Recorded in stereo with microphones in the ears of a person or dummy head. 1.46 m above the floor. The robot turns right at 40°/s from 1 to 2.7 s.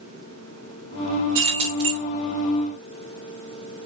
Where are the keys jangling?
20° right (ahead or behind), 0.9 m; by 2.0 s 35° right (ahead or behind), 0.9 m.